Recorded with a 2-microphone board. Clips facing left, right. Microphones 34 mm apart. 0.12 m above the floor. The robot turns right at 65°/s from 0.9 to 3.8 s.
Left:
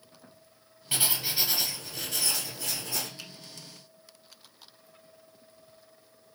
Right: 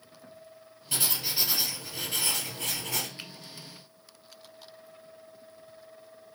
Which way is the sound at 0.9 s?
145° left.